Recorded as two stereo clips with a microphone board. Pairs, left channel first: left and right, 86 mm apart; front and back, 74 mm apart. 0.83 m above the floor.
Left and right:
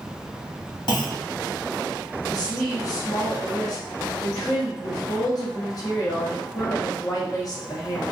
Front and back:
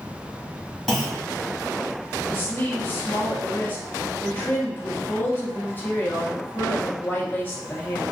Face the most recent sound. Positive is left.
turn(degrees=55)